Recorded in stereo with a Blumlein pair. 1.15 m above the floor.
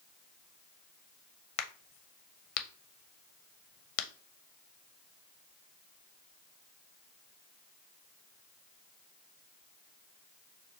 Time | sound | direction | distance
1.6 | a crack | 40° left | 0.5 m